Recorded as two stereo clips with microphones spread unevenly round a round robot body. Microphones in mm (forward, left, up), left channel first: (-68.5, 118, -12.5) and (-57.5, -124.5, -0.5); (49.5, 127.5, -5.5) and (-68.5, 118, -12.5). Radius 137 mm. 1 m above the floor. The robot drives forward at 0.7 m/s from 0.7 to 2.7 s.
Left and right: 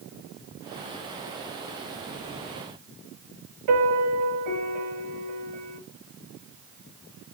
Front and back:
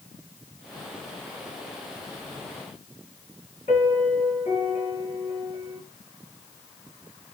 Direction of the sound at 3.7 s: 65° right.